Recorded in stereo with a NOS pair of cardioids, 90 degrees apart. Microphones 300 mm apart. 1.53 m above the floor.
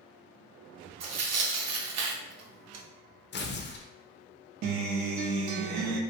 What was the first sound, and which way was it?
Tearing paper, 60° right.